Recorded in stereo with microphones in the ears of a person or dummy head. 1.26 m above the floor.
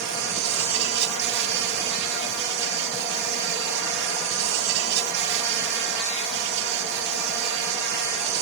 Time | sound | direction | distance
0.0 | an insect | 55° right (ahead or behind) | 0.9 m